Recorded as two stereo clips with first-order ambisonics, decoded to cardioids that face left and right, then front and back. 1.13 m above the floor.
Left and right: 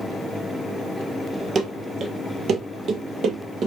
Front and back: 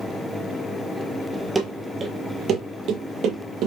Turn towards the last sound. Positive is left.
turn(degrees=-145)